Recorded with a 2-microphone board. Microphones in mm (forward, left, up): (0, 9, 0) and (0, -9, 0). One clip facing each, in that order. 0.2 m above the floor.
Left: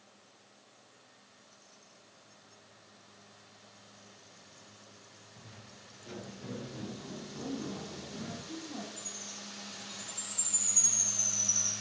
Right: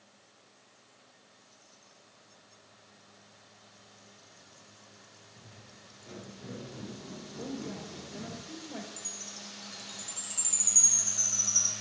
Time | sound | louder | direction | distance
5.4 | footsteps | left 2 dB | 20° left (ahead or behind) | 3.5 m
7.4 | a woman speaking | even | 70° right (ahead or behind) | 4 m
9.0 | a chime | right 1 dB | 50° right (ahead or behind) | 2.5 m